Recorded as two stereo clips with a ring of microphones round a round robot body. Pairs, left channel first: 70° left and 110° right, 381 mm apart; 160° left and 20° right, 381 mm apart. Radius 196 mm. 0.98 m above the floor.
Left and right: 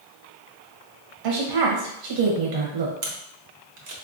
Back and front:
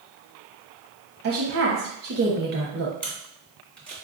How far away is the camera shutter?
About 0.9 m.